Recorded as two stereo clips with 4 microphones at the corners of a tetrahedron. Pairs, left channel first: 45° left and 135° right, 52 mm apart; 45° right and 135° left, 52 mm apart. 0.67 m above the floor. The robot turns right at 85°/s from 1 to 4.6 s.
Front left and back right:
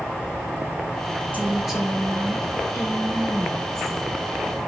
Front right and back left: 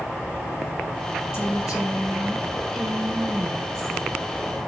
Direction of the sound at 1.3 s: 80° right.